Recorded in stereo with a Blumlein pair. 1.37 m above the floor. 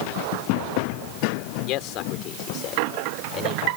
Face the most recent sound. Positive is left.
turn(degrees=30)